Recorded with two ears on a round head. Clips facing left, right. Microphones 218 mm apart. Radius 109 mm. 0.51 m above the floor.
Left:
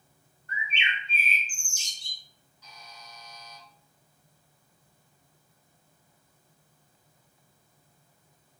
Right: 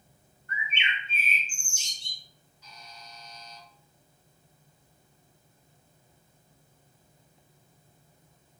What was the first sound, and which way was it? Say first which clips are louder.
A bird: even; 30° left (ahead or behind).